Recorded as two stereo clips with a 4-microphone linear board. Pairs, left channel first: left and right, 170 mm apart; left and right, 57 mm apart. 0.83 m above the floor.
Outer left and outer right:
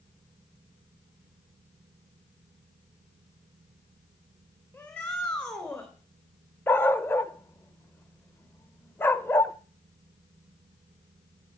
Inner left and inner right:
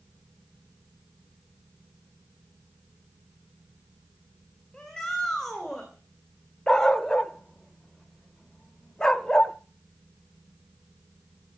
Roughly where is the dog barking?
Centre.